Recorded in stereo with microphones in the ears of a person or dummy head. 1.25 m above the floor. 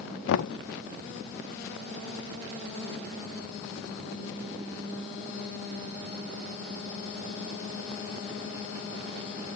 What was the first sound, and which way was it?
Knocking, 70° left (ahead or behind).